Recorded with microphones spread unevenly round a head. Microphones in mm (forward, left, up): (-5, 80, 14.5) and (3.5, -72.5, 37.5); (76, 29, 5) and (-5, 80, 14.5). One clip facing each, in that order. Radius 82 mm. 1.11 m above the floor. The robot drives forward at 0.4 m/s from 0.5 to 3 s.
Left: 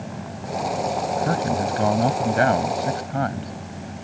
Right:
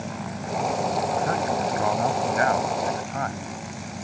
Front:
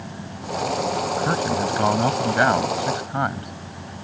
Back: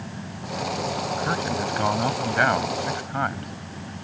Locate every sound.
1.2 s a man speaking: 35° left; by 3.5 s 40° left